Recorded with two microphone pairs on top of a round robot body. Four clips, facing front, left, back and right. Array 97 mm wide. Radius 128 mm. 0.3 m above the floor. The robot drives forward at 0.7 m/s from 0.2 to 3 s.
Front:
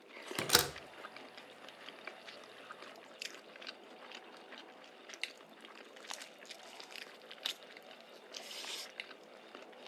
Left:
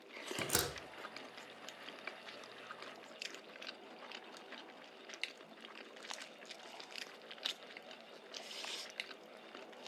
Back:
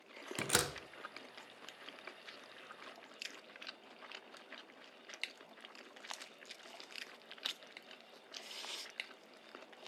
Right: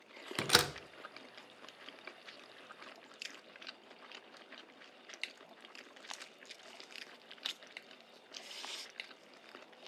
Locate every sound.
0.4 s a door slam: 55° right, 0.9 m; by 0.7 s 80° right, 0.8 m